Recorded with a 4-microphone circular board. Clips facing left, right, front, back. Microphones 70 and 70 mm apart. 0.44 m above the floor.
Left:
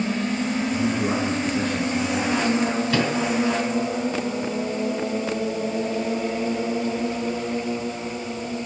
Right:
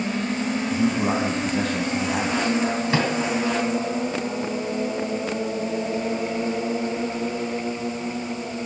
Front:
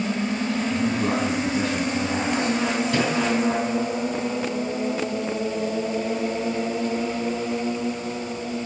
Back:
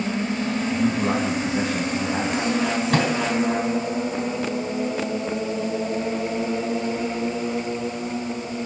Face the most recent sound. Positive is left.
turn(degrees=-150)